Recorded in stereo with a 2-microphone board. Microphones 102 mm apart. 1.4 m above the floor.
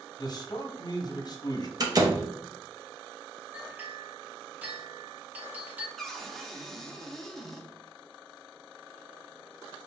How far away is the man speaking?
About 0.7 m.